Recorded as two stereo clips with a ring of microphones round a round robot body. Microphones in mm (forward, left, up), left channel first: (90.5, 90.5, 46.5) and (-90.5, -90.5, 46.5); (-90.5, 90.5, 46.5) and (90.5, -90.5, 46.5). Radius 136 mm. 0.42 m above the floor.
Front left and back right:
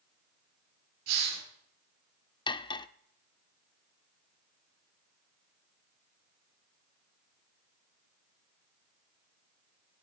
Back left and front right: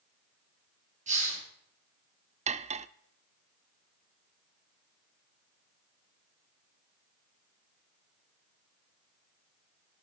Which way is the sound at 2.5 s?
10° right.